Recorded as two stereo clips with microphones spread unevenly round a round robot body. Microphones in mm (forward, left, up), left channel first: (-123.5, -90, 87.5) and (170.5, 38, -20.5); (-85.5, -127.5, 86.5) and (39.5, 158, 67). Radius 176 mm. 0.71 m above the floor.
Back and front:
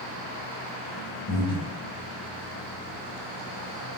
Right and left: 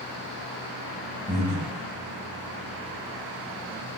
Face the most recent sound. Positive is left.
turn(degrees=135)